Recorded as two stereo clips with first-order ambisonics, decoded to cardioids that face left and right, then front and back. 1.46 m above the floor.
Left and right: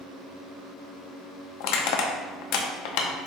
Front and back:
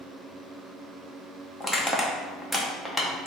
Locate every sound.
1.6 s crushing: 90° left, 0.7 m